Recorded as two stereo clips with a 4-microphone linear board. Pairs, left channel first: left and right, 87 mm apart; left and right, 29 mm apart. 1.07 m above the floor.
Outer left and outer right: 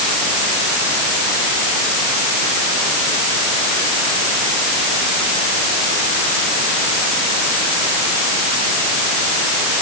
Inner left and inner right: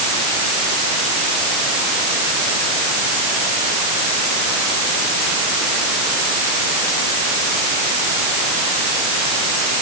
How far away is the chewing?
I don't hear chewing.